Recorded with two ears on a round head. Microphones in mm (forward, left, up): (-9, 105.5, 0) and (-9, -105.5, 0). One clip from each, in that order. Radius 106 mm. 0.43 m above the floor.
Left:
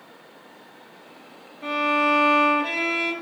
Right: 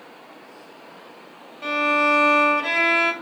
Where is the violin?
45° right (ahead or behind), 1.3 m.